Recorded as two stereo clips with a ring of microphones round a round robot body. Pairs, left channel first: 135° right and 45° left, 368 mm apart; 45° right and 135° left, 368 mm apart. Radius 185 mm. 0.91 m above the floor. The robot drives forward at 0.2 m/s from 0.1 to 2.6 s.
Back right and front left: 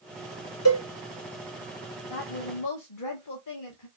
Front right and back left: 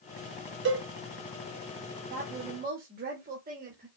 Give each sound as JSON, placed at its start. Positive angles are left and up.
{"t": 0.7, "sound": "a cowbell", "azimuth_deg": -175, "distance_m": 1.1}
{"t": 2.1, "sound": "a woman speaking", "azimuth_deg": -160, "distance_m": 0.9}